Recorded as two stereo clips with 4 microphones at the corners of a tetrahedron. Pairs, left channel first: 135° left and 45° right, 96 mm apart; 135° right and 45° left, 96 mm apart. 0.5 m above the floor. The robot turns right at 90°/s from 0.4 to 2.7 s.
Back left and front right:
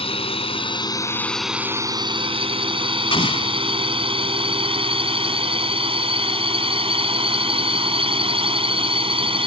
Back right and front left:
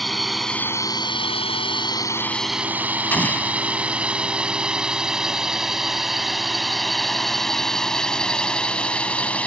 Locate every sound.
0.0 s a drone: 135° left; by 9.5 s 60° right
3.1 s an explosion: 155° left